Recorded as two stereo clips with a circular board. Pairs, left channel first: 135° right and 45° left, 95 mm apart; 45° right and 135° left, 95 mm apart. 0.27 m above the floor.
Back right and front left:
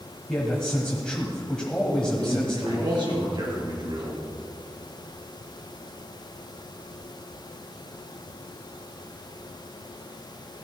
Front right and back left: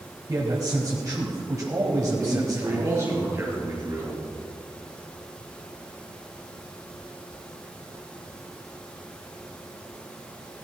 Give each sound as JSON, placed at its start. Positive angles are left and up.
{"t": 0.3, "sound": "a man speaking", "azimuth_deg": 145, "distance_m": 1.4}
{"t": 2.2, "sound": "a man speaking", "azimuth_deg": 75, "distance_m": 4.5}